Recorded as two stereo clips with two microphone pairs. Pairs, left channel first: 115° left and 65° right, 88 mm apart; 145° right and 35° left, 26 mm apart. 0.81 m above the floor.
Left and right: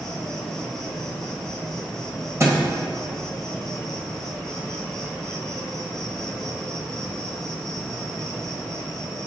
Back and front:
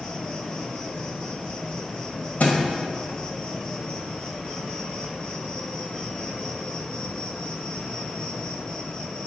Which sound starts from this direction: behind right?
A thud, at 2.4 s.